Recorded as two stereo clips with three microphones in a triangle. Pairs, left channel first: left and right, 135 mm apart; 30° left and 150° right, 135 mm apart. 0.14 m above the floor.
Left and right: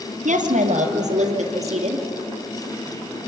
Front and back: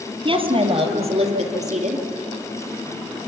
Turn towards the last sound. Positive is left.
turn(degrees=-125)